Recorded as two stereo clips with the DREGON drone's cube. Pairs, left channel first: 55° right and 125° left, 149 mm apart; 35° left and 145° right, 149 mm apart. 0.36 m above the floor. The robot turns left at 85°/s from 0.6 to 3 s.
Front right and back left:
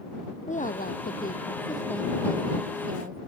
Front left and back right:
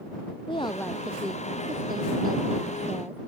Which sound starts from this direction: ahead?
A woman speaking, at 0.5 s.